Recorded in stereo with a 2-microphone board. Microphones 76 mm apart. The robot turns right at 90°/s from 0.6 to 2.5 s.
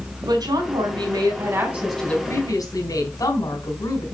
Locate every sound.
0.2 s a woman speaking: 120° right, 4 m; by 4.0 s 50° left, 4 m